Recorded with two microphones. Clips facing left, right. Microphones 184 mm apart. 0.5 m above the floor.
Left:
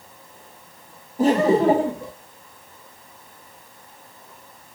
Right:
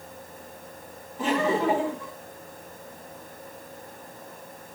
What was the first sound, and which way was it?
Laughter, 35° left (ahead or behind).